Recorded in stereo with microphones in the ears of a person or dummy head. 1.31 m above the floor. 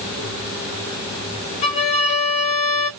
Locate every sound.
1.6 s a violin: 35° left (ahead or behind), 0.7 m